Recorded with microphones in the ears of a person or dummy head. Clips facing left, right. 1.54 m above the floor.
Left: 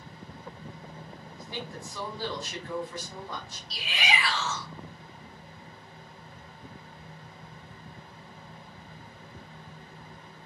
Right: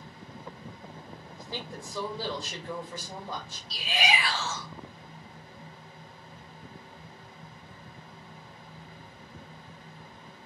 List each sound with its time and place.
1.4 s a woman speaking: 25° right (ahead or behind), 1.7 m
3.7 s a shout: 35° right (ahead or behind), 1.8 m